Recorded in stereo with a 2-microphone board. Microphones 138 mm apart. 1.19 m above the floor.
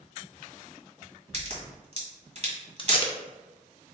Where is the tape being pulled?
40° left (ahead or behind), 0.6 m.